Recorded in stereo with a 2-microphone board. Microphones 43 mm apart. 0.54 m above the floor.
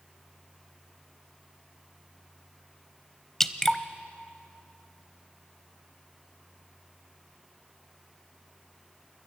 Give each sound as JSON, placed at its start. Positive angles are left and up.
{"t": 3.4, "sound": "dripping", "side_deg": 10, "distance_m": 0.7}